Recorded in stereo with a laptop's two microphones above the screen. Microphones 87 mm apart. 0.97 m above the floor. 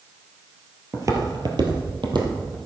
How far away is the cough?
No cough in this recording.